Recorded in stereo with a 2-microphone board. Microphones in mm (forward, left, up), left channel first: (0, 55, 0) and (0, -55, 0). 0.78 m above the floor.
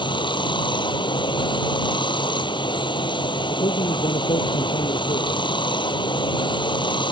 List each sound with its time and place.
0.0 s running water: 45° left (ahead or behind)
3.5 s a man speaking: 60° left (ahead or behind)